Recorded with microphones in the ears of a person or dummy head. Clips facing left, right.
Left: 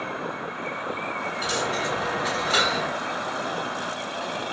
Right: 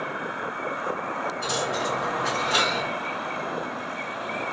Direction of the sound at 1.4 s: 15° left (ahead or behind).